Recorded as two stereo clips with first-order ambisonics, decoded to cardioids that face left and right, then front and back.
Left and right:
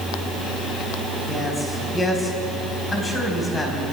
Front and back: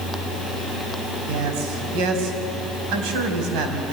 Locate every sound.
1.3 s a man speaking: 165° left, 4 m